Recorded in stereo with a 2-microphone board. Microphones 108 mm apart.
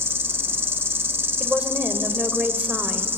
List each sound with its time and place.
0.0 s an insect: 20° right (ahead or behind), 0.9 m
1.4 s a woman speaking: 10° right (ahead or behind), 1.8 m